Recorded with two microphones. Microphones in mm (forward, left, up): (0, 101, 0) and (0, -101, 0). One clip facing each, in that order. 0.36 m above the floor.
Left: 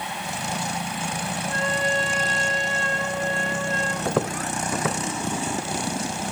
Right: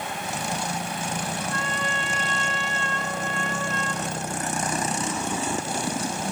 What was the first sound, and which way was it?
A trumpet, 35° left (ahead or behind).